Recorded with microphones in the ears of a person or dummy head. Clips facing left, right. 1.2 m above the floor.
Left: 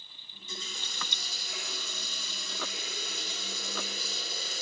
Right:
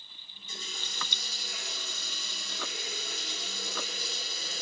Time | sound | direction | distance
0.3 | a running tap | 70° left (ahead or behind) | 1.5 m